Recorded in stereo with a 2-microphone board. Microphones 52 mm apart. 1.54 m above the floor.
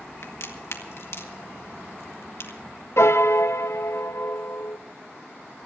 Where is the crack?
60° left (ahead or behind), 1.9 m.